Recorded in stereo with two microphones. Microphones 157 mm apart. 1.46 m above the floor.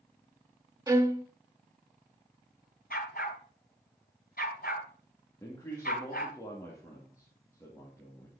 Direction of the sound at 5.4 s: 20° left (ahead or behind).